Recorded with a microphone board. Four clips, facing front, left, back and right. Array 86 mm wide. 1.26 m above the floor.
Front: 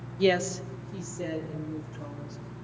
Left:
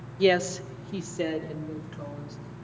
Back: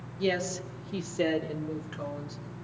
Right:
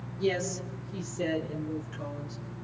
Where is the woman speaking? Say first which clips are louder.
Left 7 dB, front 5 dB; 60° left, 0.9 m; by 2.4 s 170° left, 2.5 m.